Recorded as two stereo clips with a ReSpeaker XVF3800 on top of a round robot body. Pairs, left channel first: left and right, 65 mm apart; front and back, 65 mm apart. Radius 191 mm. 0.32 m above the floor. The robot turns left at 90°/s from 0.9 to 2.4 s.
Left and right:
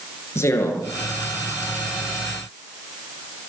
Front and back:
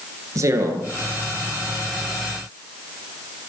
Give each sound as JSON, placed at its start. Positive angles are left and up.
{"t": 0.3, "sound": "a man speaking", "azimuth_deg": 140, "distance_m": 8.5}